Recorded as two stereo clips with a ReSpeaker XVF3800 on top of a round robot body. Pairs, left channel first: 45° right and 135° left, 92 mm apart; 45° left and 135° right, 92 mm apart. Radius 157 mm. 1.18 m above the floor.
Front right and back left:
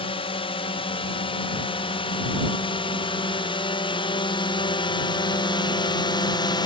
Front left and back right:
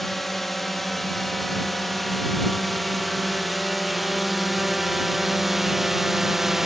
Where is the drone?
45° right; by 6.7 s 50° right.